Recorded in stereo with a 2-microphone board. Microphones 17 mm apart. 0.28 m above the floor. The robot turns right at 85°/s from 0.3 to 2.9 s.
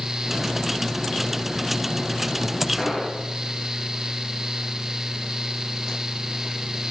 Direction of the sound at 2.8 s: 20° left (ahead or behind).